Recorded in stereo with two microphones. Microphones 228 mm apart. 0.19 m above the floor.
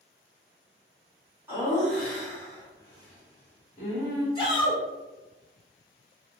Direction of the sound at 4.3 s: 20° left (ahead or behind).